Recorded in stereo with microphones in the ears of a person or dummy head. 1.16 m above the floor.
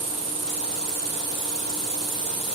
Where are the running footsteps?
I don't hear running footsteps.